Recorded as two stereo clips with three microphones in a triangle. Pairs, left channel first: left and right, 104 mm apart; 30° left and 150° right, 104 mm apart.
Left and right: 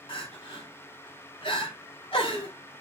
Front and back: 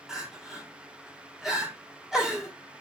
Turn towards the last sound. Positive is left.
turn(degrees=125)